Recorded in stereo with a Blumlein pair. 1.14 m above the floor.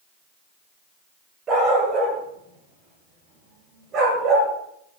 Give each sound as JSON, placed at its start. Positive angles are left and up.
{"t": 1.5, "sound": "a dog barking", "azimuth_deg": -25, "distance_m": 9.5}